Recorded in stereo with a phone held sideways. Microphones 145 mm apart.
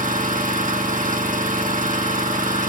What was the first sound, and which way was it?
An engine running, 65° right (ahead or behind).